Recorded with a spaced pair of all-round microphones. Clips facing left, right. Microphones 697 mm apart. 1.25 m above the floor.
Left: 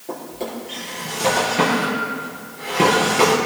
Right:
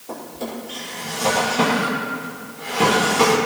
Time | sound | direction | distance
0.1 | a drawer | 80° left | 6 m